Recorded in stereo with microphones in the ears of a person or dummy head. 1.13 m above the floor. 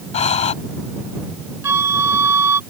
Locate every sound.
0.1 s breathing: 40° left (ahead or behind)
1.6 s a flute: 15° right (ahead or behind)